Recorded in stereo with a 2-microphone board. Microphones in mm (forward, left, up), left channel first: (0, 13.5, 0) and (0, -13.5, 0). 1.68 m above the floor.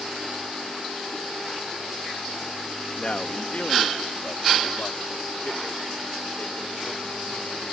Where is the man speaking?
40° left (ahead or behind); by 7.6 s 75° left (ahead or behind).